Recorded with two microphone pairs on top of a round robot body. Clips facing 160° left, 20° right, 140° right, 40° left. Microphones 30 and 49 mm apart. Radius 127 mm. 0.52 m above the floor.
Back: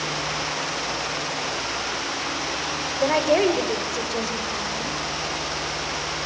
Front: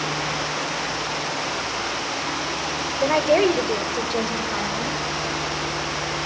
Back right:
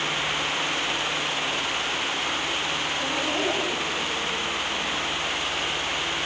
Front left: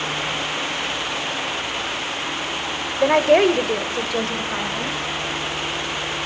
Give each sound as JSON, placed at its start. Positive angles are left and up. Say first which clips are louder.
{"t": 3.0, "sound": "a woman speaking", "louder": "front 1 dB, front left 15 dB", "azimuth_deg": 60, "distance_m": 2.5}